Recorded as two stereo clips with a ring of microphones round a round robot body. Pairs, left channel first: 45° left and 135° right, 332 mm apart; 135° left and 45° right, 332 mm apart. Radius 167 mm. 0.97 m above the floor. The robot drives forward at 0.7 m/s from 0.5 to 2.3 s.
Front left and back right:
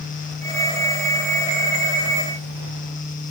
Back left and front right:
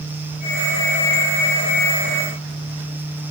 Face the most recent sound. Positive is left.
No sound to turn to.